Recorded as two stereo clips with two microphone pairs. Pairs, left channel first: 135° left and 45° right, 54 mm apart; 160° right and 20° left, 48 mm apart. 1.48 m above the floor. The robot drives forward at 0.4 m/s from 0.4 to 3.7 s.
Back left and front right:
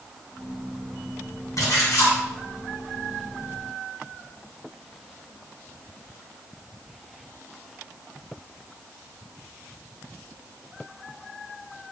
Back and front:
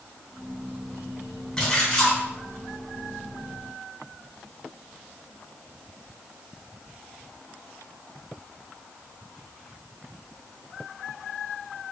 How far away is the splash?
About 1.5 m.